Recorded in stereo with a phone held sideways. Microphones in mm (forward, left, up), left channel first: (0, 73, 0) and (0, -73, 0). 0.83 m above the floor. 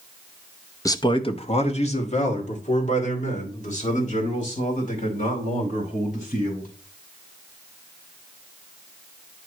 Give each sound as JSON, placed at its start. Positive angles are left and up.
{"t": 0.8, "sound": "a man speaking", "side_deg": 20, "distance_m": 0.6}